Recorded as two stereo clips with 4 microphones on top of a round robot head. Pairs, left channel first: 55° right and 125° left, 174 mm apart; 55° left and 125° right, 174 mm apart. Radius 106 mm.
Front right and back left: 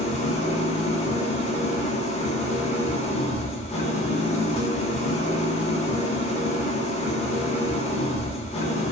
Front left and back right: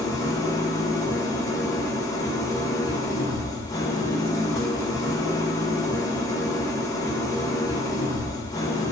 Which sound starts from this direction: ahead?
An engine running, at 0.0 s.